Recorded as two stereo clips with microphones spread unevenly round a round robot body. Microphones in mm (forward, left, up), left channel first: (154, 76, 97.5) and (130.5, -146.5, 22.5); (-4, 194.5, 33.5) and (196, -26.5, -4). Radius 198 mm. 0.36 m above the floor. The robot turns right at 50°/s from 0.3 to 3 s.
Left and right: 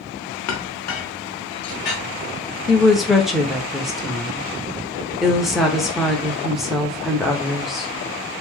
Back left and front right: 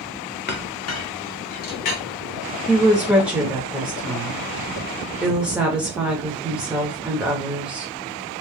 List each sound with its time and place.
0.5 s a clink: 70° left, 0.8 m; by 2.0 s 150° left, 0.8 m
2.7 s a woman speaking: 125° right, 0.9 m; by 7.9 s 105° right, 0.9 m